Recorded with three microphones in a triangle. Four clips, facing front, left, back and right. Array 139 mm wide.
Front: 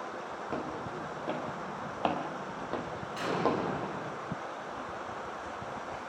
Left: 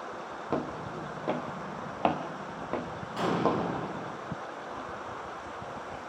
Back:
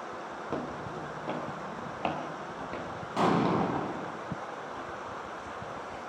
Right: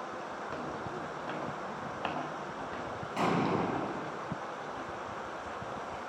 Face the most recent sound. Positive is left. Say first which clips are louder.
# left 2 dB, back 5 dB
turn(degrees=-170)